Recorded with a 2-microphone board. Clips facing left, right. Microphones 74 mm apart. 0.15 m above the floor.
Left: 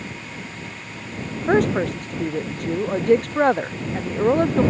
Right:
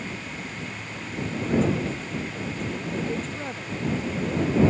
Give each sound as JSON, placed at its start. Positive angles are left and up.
{"t": 1.5, "sound": "a woman speaking", "side_deg": 75}